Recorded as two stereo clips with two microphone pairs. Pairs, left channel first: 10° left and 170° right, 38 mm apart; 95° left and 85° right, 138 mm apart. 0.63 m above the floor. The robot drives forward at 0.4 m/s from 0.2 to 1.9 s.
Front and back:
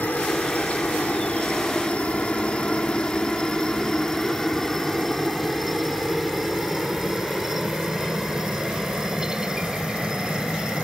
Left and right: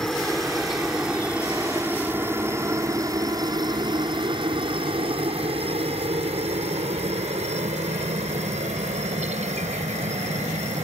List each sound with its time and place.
0.0 s a helicopter: 5° left; by 10.8 s 105° right